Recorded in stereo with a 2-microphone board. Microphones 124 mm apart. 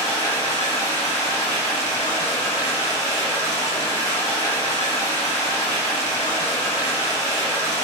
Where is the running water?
35° right (ahead or behind), 1.9 m.